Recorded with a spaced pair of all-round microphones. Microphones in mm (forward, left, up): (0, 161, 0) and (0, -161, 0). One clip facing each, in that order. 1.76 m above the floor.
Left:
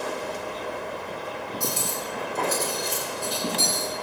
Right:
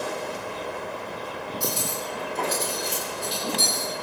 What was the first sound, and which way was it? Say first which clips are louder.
Cutlery clinking: right 2 dB; 60° left (ahead or behind).